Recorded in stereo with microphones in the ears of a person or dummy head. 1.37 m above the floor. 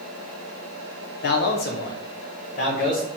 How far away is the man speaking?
About 0.7 m.